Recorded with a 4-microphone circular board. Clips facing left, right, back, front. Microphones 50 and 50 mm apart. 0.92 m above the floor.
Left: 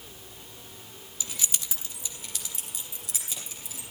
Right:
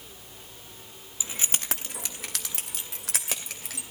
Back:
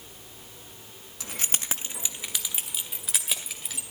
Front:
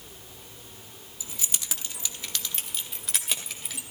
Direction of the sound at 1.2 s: 160° right.